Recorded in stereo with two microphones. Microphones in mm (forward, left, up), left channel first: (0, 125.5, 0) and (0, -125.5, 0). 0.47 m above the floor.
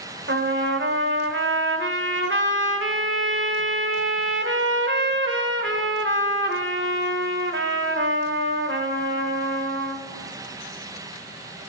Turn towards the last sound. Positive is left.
turn(degrees=-50)  # may be behind; listen again after turning